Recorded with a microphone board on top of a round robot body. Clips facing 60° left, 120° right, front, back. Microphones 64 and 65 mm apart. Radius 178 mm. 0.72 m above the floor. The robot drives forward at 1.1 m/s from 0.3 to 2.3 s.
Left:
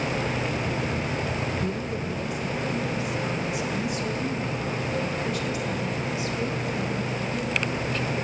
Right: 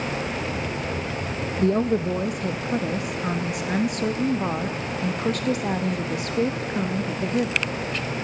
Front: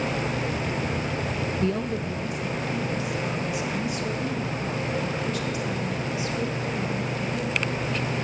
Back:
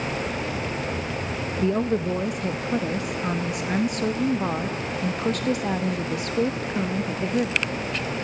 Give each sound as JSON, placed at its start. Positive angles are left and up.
{"t": 1.6, "sound": "a woman speaking", "azimuth_deg": -95, "distance_m": 0.7}